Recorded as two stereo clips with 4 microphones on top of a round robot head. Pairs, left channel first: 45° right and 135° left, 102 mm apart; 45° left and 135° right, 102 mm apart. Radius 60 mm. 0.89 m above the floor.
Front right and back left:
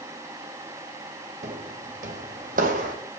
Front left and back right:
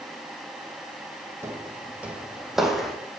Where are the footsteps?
160° left, 2.5 m; by 3.0 s 135° left, 2.5 m.